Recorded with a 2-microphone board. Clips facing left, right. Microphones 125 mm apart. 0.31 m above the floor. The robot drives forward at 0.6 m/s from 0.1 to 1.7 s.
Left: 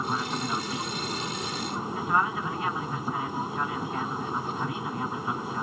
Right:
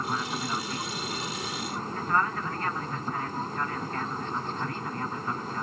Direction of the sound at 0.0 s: 10° left (ahead or behind).